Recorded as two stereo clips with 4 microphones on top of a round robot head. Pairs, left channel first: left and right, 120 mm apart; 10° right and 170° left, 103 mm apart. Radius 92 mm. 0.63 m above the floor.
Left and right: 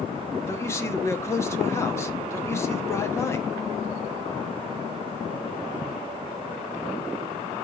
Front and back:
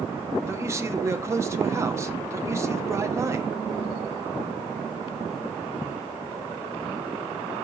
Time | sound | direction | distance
0.5 | a man speaking | 135° left | 1.1 m